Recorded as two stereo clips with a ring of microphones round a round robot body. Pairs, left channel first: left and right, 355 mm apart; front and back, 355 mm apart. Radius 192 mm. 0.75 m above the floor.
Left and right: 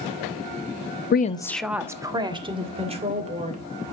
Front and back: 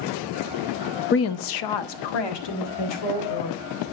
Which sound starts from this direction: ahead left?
A woman speaking, at 1.1 s.